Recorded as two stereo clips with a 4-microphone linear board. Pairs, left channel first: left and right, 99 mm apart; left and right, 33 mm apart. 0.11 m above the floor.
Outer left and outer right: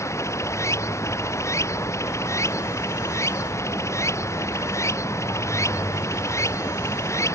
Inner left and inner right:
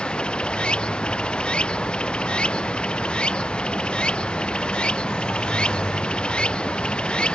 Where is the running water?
30° left (ahead or behind).